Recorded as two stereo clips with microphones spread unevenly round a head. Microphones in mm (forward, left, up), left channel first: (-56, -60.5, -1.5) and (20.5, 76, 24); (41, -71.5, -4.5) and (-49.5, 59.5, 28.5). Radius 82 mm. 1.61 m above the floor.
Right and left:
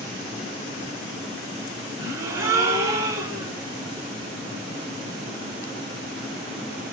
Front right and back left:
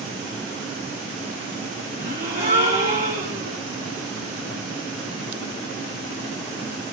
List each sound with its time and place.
2.0 s a gasp: 90° left, 1.6 m